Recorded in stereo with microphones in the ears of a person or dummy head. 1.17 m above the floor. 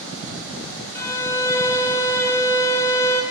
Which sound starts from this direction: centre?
A violin, at 0.9 s.